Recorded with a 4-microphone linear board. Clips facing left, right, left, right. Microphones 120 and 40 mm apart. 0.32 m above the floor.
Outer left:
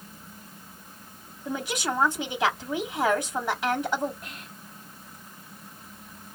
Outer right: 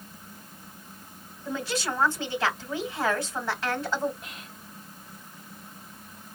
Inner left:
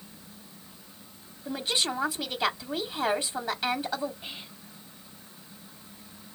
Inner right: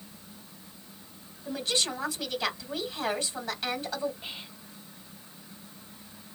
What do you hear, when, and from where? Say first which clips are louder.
1.4 s a woman speaking: outer left 1 dB, inner left 1 dB; 15° left (ahead or behind), 1.8 m
4.2 s whispering: outer left 1 dB, even; centre (ahead or behind), 1.2 m